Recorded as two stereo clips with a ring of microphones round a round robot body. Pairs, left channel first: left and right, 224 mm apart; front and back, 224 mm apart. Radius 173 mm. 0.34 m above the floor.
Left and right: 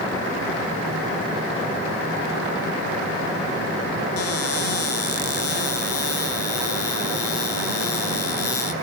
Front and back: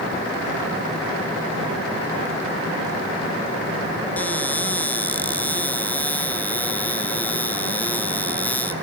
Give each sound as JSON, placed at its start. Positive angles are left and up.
{"t": 4.2, "sound": "a cupboard door", "azimuth_deg": 85, "distance_m": 2.5}